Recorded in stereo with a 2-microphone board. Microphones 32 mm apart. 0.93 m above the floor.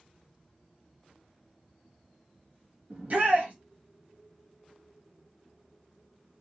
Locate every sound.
2.9 s a shout: 45° right (ahead or behind), 1.2 m